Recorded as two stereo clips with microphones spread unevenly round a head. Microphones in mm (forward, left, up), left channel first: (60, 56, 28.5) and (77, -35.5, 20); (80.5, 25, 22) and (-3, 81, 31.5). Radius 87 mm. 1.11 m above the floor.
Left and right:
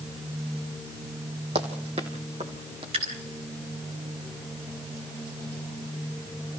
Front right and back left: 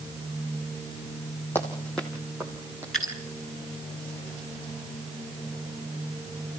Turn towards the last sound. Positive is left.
turn(degrees=-125)